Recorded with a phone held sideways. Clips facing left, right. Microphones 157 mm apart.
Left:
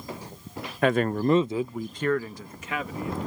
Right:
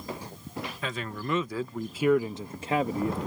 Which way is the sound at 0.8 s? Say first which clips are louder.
Left 15 dB; 65° left (ahead or behind).